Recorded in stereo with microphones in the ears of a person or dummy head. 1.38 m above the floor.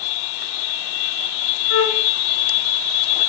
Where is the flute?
75° left (ahead or behind), 6 m.